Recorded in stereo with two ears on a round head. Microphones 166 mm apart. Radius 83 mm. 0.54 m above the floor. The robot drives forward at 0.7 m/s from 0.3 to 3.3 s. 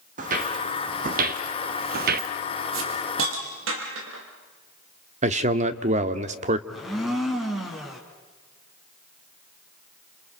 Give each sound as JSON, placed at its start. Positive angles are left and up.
{"t": 0.2, "sound": "footsteps", "side_deg": -45, "distance_m": 2.0}
{"t": 2.7, "sound": "a hiss", "side_deg": -85, "distance_m": 4.5}
{"t": 5.2, "sound": "a man speaking", "side_deg": -40, "distance_m": 1.3}
{"t": 6.7, "sound": "a blender", "side_deg": 0, "distance_m": 3.5}